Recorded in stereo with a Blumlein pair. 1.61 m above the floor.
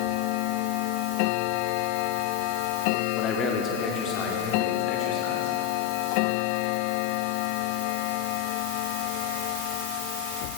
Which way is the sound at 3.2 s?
25° left.